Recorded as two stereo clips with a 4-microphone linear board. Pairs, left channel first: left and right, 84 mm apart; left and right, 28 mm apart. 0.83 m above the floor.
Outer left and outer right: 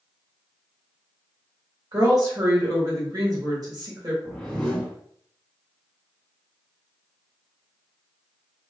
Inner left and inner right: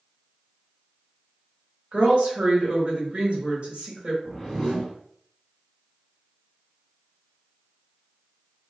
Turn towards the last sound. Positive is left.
turn(degrees=5)  # may be behind; listen again after turning